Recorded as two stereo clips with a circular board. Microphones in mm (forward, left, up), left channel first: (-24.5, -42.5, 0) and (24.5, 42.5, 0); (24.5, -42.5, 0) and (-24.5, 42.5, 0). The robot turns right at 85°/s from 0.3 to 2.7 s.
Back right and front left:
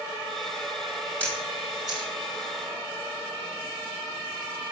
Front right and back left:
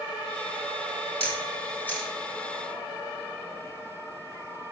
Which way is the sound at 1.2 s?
45° right.